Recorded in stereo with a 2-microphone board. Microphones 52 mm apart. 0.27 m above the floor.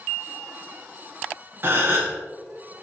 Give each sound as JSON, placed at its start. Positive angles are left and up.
{"t": 1.6, "sound": "a gasp", "side_deg": -40, "distance_m": 0.5}